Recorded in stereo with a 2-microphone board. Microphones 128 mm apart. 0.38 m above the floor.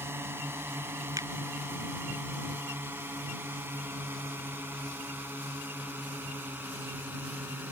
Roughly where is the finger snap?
Right.